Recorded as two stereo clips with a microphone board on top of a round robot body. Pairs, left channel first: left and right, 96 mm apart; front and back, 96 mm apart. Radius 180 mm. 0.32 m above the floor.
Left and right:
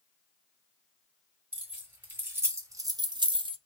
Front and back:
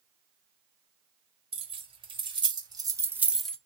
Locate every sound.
1.5 s keys jangling: 165° right, 2 m; by 3.6 s 75° right, 0.9 m